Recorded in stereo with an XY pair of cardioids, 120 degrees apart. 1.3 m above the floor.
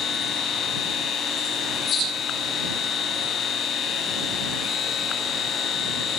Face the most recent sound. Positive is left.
turn(degrees=55)